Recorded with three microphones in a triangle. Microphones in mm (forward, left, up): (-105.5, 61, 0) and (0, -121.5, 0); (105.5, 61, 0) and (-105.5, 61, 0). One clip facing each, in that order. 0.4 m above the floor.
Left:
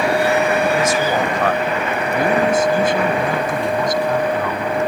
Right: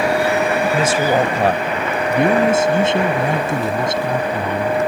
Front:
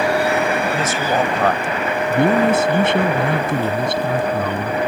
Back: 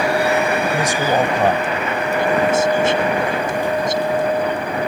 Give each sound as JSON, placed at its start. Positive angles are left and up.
{"t": 0.7, "sound": "a woman speaking", "azimuth_deg": -110}
{"t": 2.1, "sound": "a man speaking", "azimuth_deg": 0}